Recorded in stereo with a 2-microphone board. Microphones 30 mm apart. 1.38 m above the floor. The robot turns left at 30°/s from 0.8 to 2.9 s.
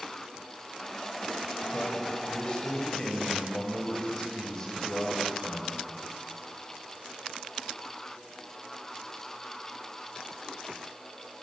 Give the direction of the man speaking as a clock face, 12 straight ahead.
10 o'clock.